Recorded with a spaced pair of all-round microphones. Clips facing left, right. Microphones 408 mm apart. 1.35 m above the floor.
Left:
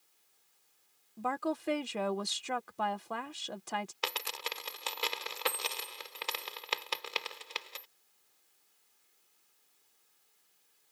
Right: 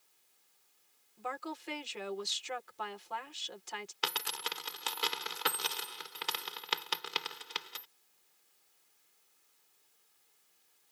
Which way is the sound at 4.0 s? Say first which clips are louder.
Left 2 dB; 30° right (ahead or behind).